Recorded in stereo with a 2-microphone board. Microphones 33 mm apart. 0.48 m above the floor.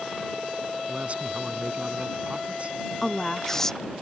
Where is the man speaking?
45° right (ahead or behind).